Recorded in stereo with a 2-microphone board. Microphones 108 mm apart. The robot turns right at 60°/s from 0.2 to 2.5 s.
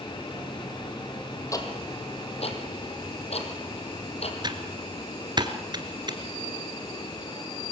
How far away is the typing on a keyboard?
About 1.9 m.